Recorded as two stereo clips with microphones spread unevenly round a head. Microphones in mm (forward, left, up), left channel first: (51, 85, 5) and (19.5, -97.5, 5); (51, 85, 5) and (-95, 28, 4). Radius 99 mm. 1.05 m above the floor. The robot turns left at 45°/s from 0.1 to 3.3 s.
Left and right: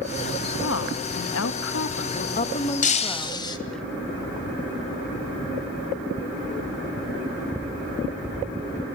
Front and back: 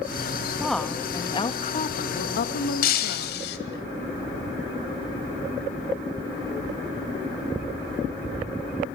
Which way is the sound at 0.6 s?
115° left.